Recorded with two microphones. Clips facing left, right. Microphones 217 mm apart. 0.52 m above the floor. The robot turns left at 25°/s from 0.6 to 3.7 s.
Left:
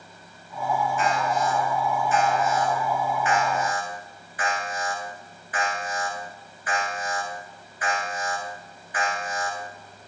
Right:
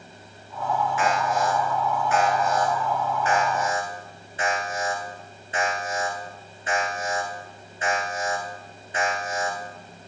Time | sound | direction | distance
1.0 | an alarm | 80° right | 9 m